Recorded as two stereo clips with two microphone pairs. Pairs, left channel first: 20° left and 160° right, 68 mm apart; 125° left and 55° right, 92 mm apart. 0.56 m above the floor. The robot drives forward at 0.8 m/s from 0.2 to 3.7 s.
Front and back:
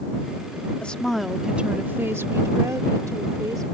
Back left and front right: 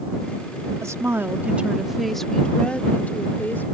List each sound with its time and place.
0.8 s a woman speaking: 35° right; by 3.6 s 170° right